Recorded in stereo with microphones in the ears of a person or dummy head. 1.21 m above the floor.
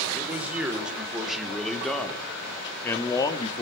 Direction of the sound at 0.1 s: 10° right (ahead or behind).